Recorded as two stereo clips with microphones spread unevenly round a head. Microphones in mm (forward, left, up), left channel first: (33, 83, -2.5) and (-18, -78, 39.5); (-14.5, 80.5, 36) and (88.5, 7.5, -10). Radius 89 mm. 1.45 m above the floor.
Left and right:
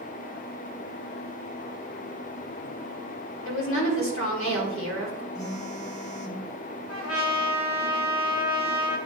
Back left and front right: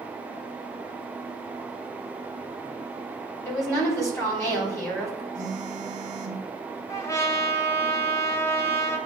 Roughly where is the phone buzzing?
Ahead.